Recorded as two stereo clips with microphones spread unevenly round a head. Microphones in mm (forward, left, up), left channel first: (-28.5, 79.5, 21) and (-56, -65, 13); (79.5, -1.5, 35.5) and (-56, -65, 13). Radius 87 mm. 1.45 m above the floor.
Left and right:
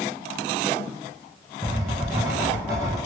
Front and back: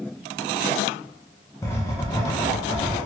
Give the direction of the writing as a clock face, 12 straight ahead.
1 o'clock.